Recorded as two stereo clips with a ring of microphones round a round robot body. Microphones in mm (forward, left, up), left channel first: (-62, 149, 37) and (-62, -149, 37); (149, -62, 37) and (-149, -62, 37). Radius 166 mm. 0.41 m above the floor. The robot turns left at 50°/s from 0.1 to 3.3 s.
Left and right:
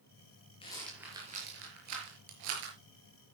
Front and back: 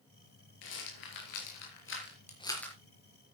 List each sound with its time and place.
0.6 s a rattle: 15° left, 5 m; by 3.3 s 120° right, 5 m